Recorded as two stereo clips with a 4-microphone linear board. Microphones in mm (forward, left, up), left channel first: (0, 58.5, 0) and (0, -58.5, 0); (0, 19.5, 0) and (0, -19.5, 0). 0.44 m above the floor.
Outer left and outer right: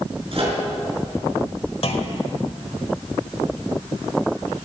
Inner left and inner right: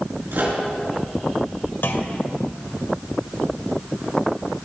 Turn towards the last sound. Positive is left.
turn(degrees=55)  # may be behind; listen again after turning